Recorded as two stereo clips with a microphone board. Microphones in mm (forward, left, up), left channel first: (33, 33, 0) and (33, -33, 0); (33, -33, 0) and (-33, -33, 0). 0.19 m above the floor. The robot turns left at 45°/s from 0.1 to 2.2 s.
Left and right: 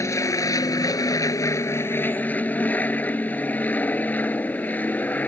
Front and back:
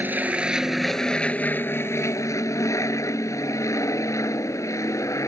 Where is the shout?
I don't hear a shout.